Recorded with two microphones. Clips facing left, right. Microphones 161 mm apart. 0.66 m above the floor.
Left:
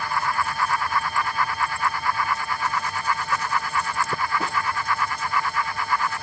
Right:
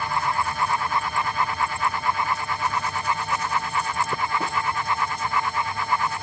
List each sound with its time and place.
Only background noise.